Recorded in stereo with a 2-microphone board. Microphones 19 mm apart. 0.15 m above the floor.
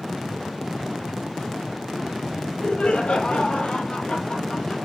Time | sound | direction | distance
2.3 | laughter | 65° left (ahead or behind) | 4.5 m